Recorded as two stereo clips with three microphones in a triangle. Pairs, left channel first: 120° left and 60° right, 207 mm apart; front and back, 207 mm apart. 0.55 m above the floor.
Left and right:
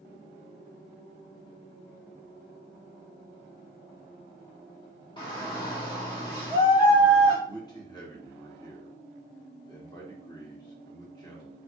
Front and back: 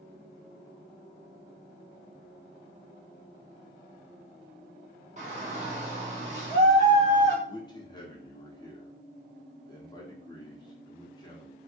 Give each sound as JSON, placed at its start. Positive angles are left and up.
{"t": 5.2, "sound": "a shout", "azimuth_deg": 170, "distance_m": 0.9}
{"t": 7.5, "sound": "a man speaking", "azimuth_deg": 60, "distance_m": 1.2}